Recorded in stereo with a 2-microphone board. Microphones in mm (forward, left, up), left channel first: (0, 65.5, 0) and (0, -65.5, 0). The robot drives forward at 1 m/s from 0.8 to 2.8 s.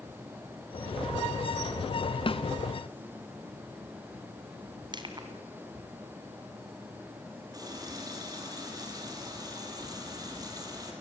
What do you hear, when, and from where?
2.3 s a snare drum: 45° left (ahead or behind), 1.4 m; by 2.4 s 50° left (ahead or behind), 1.3 m
4.9 s crushing: 35° right (ahead or behind), 3 m
7.5 s a running tap: 30° right (ahead or behind), 5 m